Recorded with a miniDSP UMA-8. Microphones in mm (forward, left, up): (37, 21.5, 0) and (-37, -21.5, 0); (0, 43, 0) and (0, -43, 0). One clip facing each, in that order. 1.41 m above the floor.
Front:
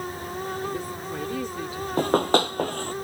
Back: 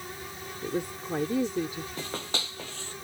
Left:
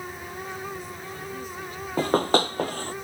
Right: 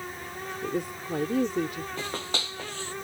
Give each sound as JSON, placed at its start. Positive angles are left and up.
{"t": 0.6, "sound": "a woman speaking", "azimuth_deg": -80}
{"t": 2.0, "sound": "running footsteps", "azimuth_deg": 55}